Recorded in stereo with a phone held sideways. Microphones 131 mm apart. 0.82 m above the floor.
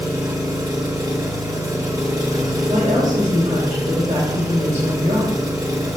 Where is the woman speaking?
75° right (ahead or behind), 4.5 m.